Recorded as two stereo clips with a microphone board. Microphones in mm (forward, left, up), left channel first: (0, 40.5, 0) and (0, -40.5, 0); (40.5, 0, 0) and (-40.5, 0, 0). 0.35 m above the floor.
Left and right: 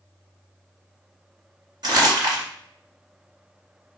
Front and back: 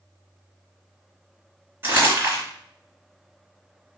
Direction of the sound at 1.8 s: 120° right.